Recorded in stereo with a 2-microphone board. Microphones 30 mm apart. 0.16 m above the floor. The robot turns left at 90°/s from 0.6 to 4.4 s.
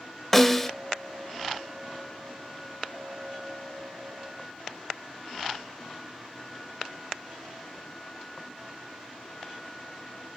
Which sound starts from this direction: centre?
A snare drum, at 0.3 s.